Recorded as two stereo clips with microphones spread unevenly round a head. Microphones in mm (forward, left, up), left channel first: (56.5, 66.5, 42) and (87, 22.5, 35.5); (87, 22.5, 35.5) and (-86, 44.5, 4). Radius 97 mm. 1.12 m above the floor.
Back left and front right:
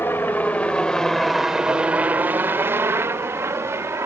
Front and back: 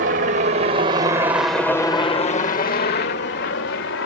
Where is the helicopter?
175° right; by 4.1 s 25° right.